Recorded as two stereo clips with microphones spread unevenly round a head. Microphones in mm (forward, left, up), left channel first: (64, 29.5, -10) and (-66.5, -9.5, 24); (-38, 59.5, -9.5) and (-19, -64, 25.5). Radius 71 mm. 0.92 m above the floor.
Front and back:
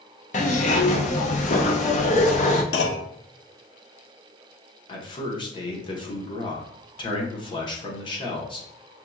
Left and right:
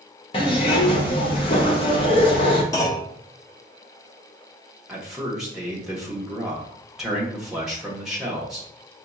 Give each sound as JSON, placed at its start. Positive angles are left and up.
{"t": 0.3, "sound": "a zipper", "azimuth_deg": 50, "distance_m": 0.7}
{"t": 2.7, "sound": "a clunk", "azimuth_deg": 25, "distance_m": 0.6}
{"t": 4.9, "sound": "a man speaking", "azimuth_deg": 20, "distance_m": 1.0}